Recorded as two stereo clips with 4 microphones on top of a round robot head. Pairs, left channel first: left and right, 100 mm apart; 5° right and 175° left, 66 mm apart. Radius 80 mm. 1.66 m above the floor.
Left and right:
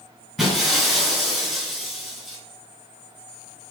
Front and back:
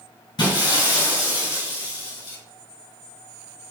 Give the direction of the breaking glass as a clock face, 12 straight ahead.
12 o'clock.